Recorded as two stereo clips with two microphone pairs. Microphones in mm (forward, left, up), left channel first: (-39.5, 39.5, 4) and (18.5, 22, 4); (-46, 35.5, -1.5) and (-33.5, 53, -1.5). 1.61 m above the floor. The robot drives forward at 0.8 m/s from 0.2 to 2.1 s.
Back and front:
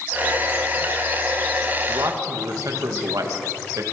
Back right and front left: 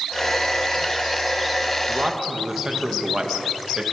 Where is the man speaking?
Straight ahead, 2.5 m; by 3.8 s 5° left, 2.5 m.